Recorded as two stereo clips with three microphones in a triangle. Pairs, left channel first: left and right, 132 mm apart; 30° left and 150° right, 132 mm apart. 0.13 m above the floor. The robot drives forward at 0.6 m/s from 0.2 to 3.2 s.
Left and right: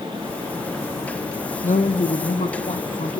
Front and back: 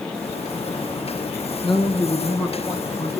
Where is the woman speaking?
80° left, 4 m; by 3.2 s 95° left, 4 m.